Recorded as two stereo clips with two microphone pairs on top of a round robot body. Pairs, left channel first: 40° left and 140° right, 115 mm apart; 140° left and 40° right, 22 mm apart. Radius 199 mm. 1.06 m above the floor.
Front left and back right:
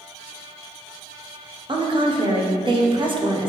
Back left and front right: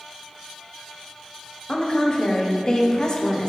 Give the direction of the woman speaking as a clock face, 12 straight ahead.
5 o'clock.